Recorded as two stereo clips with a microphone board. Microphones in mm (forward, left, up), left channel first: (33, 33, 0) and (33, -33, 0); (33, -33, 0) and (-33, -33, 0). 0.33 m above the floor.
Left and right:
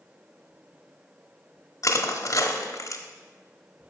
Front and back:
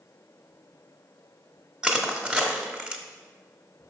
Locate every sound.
1.8 s crushing: 105° left, 0.7 m